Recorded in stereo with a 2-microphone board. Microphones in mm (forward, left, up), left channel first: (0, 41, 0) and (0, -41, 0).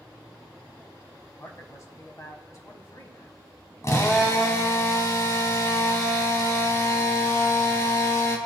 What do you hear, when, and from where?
1.4 s a man speaking: 40° left (ahead or behind), 2.5 m
3.8 s a drill: 40° left (ahead or behind), 2 m